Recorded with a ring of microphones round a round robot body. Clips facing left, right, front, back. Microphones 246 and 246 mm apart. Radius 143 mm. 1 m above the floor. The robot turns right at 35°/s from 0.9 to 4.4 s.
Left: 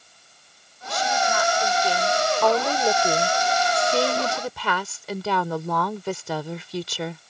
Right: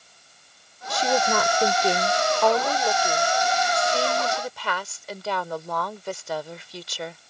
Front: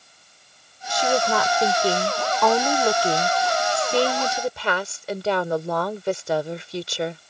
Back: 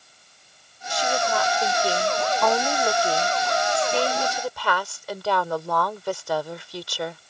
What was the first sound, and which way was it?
A woman speaking, 55° right.